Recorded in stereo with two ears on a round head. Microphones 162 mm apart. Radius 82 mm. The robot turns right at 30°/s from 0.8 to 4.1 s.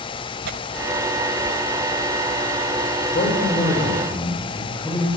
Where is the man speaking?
135° left, 6 m; by 5.1 s 165° left, 6 m.